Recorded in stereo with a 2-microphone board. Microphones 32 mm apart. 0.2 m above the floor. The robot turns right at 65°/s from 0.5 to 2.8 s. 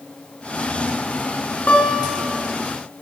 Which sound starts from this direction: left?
A guitar, at 1.7 s.